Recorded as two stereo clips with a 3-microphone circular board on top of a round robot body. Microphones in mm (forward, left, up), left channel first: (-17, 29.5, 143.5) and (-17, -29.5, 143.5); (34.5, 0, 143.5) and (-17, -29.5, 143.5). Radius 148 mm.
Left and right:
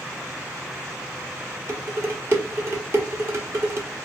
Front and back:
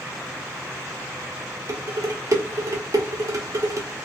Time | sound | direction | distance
1.7 | dishes clattering | 130° right | 1.2 m